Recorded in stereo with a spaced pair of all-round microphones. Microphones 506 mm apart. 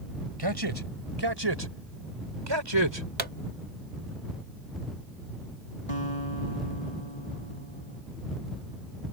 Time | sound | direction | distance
0.4 | a man speaking | 50° right (ahead or behind) | ?
3.2 | a pop | 85° right | ?
5.9 | a guitar | 85° left | ?